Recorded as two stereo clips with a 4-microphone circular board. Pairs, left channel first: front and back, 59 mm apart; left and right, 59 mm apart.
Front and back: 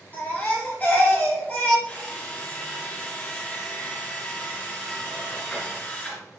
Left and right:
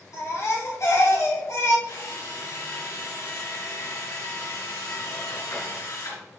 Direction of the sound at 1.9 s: 65° left.